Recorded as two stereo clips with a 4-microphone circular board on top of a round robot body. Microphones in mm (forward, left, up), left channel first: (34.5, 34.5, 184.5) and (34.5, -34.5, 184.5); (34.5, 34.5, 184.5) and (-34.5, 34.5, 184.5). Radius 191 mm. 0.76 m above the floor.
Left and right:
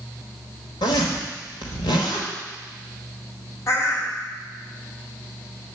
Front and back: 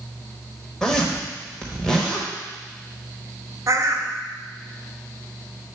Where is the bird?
135° left, 1.1 m.